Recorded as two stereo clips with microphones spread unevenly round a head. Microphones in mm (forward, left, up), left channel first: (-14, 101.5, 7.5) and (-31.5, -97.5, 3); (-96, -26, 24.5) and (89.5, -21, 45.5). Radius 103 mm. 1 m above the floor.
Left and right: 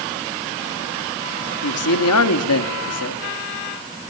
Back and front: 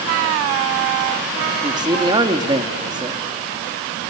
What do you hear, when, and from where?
1.6 s a man speaking: 75° left, 1.9 m